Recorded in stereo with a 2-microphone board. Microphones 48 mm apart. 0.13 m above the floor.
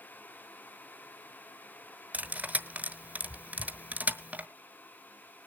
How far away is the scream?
No scream in this recording.